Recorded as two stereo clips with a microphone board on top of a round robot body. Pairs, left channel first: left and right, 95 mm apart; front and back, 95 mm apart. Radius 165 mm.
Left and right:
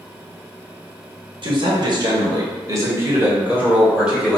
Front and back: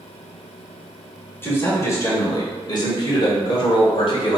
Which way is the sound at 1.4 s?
65° right.